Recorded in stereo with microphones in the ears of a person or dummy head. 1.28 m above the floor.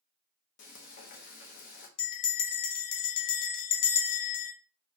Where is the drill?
No drill in this recording.